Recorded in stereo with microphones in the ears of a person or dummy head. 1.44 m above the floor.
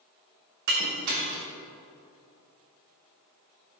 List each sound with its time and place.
0.7 s breaking glass: 45° right (ahead or behind), 0.9 m